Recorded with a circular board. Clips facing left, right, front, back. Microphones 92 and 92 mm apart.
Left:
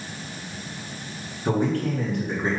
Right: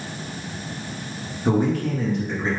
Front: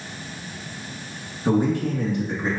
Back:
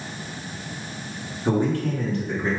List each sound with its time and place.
1.4 s a man speaking: 55° right, 1.4 m; by 2.5 s 30° left, 1.5 m